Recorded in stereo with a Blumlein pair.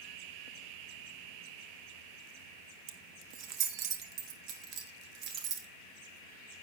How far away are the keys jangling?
About 1.5 m.